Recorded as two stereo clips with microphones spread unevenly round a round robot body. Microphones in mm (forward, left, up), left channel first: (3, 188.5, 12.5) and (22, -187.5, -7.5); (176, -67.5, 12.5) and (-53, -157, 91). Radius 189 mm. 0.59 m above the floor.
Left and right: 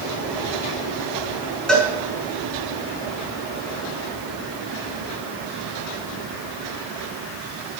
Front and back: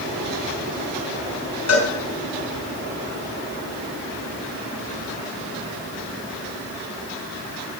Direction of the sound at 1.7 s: 5° left.